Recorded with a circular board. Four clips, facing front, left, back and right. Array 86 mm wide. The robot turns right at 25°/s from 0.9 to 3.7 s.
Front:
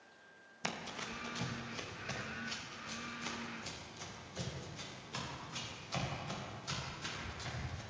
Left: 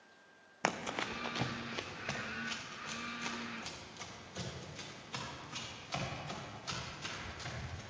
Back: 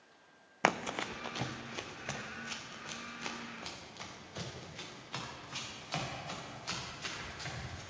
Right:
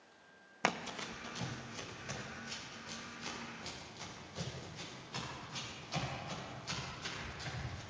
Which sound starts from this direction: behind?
Running footsteps, at 0.6 s.